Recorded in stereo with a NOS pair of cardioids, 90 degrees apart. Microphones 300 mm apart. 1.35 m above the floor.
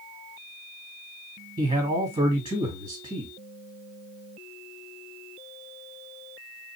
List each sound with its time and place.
1.6 s a man speaking: 25° right, 1.8 m